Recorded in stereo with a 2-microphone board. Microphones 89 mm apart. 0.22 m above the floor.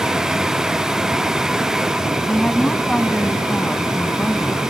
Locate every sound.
2.3 s a woman speaking: 10° left (ahead or behind)